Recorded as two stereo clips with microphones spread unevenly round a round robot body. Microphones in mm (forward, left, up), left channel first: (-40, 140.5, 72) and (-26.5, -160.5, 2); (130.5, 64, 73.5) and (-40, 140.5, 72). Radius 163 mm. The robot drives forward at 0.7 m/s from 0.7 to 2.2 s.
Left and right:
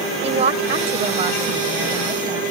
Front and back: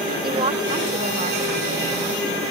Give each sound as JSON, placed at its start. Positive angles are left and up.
{"t": 0.2, "sound": "a woman speaking", "azimuth_deg": -145}